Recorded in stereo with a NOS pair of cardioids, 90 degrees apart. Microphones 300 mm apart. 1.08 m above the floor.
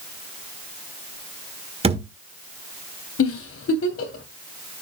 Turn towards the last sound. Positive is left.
turn(degrees=50)